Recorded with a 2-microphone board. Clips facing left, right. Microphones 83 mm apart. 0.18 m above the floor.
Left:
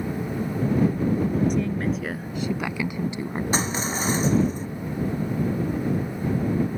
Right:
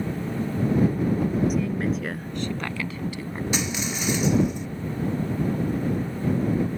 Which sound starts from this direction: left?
Crushing, at 3.5 s.